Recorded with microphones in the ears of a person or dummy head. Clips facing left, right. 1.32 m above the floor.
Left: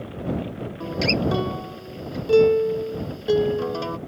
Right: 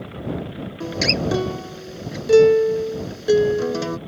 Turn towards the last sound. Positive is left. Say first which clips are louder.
# even
turn(degrees=-30)  # may be behind; listen again after turning